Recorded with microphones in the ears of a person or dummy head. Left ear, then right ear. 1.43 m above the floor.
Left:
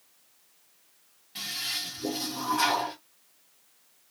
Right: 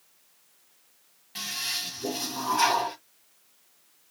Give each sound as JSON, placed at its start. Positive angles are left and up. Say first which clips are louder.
{"t": 1.4, "sound": "a toilet flushing", "louder": "right 1 dB", "side_deg": -20, "distance_m": 1.4}